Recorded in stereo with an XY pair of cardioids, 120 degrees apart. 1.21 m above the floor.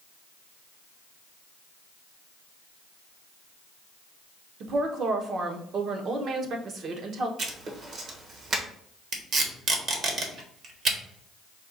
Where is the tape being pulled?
50° right, 1.4 m.